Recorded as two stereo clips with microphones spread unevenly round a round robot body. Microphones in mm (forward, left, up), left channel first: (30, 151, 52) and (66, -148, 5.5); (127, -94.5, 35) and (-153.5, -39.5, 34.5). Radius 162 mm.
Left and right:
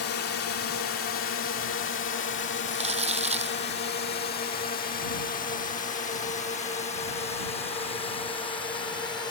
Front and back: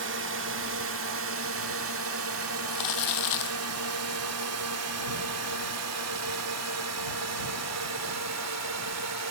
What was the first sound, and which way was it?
A drone, 135° left.